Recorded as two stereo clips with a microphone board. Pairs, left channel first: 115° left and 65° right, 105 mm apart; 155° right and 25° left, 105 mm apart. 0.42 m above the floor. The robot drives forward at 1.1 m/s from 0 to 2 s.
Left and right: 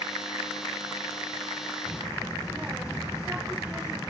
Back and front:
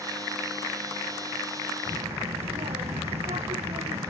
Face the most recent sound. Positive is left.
turn(degrees=10)